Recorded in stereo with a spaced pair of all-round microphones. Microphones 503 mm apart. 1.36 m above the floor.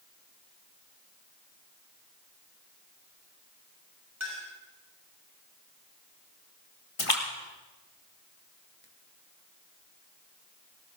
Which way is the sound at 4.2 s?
30° right (ahead or behind).